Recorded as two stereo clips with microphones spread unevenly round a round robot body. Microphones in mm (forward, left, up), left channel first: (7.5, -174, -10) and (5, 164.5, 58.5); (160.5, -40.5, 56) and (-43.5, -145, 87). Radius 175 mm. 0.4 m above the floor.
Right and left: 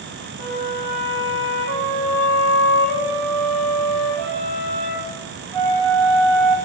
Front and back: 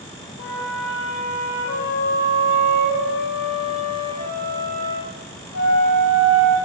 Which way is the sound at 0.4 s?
80° left.